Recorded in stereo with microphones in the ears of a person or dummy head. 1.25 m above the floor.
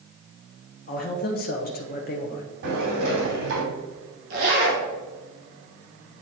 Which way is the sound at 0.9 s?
45° left (ahead or behind).